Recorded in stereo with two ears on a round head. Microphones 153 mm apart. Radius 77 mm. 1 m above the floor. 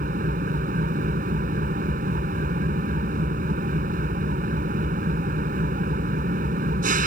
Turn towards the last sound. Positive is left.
turn(degrees=-50)  # may be behind; listen again after turning